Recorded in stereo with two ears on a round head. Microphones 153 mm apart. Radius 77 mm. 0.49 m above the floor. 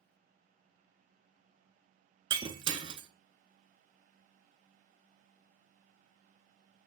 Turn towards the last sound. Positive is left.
turn(degrees=-30)  # may be behind; listen again after turning